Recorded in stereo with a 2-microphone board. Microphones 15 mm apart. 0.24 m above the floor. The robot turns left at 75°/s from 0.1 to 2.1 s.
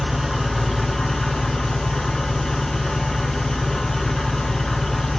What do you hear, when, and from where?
0.0 s an engine running: 165° right, 0.9 m; by 5.2 s 45° left, 0.9 m